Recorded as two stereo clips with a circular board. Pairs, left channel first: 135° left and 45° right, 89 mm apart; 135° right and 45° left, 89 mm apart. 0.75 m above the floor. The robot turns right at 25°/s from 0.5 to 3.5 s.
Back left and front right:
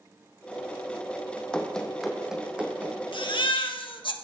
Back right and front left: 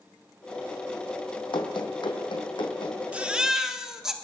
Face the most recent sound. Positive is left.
turn(degrees=130)